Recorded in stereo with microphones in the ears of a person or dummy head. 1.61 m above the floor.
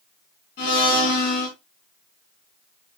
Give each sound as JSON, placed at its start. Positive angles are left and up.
{"t": 0.6, "sound": "a blender", "side_deg": 55, "distance_m": 5.0}